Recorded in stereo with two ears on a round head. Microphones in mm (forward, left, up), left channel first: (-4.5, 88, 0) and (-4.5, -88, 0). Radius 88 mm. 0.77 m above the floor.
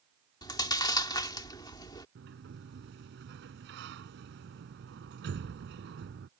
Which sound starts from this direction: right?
A sliding door, at 2.1 s.